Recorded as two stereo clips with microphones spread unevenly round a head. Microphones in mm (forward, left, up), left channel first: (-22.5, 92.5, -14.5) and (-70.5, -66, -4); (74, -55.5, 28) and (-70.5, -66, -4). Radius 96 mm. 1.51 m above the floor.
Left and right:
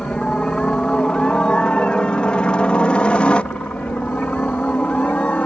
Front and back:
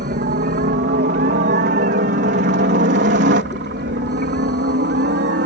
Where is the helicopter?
160° left; by 5.5 s 155° left.